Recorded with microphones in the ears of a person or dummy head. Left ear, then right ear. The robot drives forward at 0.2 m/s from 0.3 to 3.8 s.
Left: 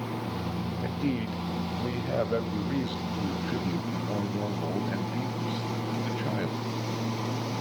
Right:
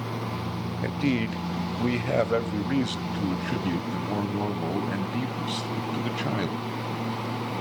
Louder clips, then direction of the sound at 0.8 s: Right 6 dB; 60° right (ahead or behind).